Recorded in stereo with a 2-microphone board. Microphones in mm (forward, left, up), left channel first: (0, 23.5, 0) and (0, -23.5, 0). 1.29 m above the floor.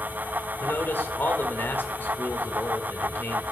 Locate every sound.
0.6 s a man speaking: 50° left (ahead or behind), 1.7 m